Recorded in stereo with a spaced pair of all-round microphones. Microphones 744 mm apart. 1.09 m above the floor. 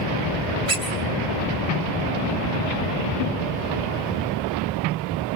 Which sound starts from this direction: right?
A squeak, at 0.7 s.